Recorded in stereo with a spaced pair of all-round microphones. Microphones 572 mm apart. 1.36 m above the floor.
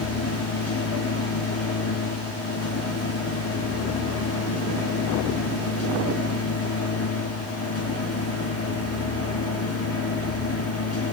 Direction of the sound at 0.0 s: 25° left (ahead or behind).